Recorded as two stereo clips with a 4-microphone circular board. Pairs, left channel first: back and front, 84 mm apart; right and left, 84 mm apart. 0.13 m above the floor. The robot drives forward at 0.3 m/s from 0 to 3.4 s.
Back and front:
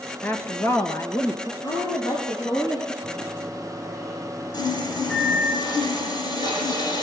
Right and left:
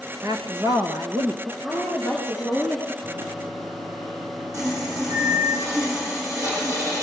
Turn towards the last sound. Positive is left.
turn(degrees=145)